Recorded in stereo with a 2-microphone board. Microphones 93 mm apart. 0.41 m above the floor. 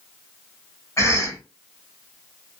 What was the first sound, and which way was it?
A cough, 35° left (ahead or behind).